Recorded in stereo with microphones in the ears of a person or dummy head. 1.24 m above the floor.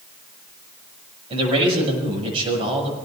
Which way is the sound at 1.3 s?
30° right (ahead or behind).